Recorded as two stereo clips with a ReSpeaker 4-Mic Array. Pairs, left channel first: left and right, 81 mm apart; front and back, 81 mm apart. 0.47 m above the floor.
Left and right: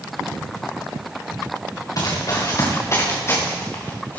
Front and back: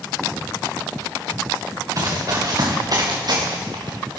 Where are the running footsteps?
130° left, 3.5 m; by 4.2 s 160° left, 4 m.